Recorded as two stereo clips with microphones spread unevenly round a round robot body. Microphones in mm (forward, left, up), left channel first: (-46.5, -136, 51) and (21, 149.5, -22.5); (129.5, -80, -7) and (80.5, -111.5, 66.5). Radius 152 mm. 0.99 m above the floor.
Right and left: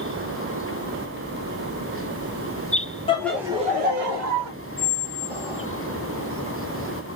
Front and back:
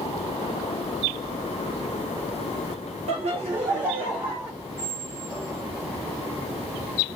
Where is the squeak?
165° left, 1.5 m.